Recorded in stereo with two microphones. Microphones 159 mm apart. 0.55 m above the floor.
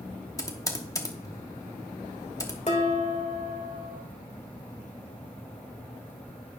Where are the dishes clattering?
45° left (ahead or behind), 1.3 m.